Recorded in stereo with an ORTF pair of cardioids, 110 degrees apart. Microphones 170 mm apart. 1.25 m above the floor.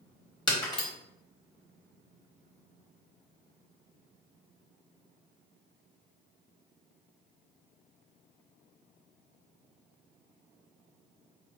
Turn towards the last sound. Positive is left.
turn(degrees=25)